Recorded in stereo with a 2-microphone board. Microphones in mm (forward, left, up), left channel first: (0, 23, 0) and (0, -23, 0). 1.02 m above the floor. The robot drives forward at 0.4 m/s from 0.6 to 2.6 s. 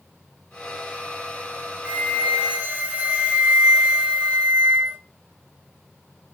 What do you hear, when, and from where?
1.9 s a flute: 20° right (ahead or behind), 1.0 m; by 5.0 s 30° right (ahead or behind), 0.8 m